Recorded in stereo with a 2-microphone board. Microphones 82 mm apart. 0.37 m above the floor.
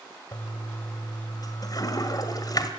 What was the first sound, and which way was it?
A toilet flushing, 50° left (ahead or behind).